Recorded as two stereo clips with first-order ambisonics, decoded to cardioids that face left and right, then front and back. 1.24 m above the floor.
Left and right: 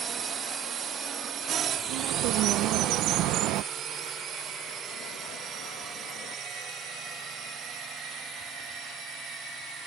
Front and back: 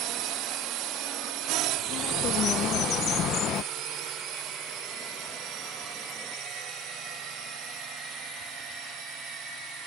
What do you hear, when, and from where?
0.0 s a drone: 150° right; by 9.9 s 140° right
1.9 s a bird: 55° right